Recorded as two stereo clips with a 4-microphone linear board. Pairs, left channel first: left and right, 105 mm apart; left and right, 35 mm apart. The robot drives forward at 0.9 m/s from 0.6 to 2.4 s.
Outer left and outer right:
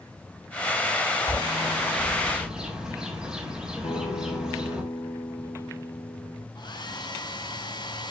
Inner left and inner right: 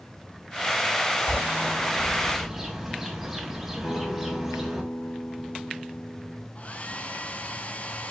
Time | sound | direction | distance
1.3 | a bird | 5° right (ahead or behind) | 3 m
3.8 | a guitar | 70° left (ahead or behind) | 4.5 m
6.5 | a hair dryer | 45° left (ahead or behind) | 1.2 m